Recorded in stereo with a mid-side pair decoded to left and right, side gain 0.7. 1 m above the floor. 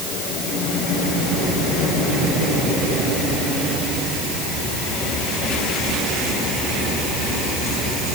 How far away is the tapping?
No tapping in this recording.